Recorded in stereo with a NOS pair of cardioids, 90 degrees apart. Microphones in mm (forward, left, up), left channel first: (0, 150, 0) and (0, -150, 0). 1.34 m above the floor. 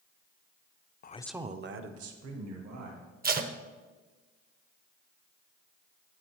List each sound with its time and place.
1.0 s a man speaking: 35° left, 0.6 m; by 3.1 s 70° right, 2.5 m
3.2 s tape being pulled: 35° right, 0.8 m